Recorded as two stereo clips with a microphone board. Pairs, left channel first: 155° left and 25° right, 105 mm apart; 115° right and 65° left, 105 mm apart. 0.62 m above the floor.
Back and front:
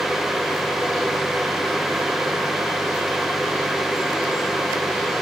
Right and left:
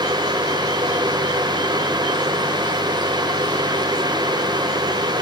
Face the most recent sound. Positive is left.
No sound to turn to.